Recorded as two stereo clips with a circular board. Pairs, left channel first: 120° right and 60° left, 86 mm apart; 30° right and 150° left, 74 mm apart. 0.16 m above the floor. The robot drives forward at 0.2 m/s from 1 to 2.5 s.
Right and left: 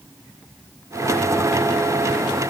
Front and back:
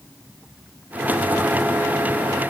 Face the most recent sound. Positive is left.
No sound to turn to.